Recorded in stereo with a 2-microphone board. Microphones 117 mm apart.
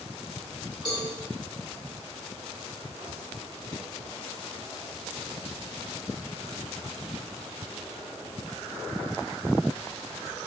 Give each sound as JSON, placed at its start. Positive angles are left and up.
{"t": 0.8, "sound": "a cowbell", "side_deg": -40, "distance_m": 1.2}